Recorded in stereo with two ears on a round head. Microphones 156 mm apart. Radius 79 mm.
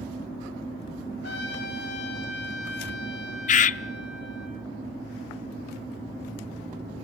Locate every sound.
1.2 s a trumpet: 75° left (ahead or behind), 3.5 m
3.5 s a bird: 45° left (ahead or behind), 0.5 m